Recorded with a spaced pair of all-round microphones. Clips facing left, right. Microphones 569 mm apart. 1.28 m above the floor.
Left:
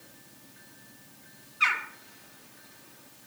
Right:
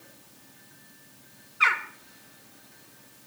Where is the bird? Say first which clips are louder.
Right 4 dB; 75° right (ahead or behind), 1.2 m.